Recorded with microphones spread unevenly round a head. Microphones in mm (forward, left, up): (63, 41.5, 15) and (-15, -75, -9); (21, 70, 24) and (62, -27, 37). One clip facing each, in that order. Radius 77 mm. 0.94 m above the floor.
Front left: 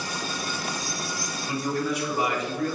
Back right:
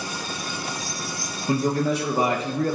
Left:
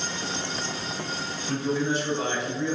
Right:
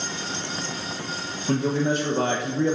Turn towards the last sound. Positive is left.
turn(degrees=-100)